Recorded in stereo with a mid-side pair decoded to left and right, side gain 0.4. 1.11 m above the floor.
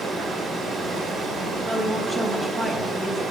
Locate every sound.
0.0 s running water: 65° right, 2.5 m
1.6 s a woman speaking: 30° right, 1.8 m